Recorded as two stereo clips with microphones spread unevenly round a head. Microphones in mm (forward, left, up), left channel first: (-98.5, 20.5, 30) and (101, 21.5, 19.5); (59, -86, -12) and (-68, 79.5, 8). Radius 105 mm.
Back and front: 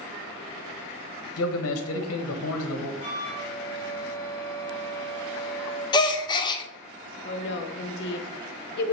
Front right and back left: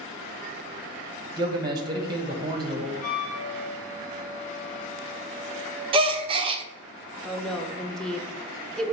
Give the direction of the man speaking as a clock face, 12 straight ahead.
5 o'clock.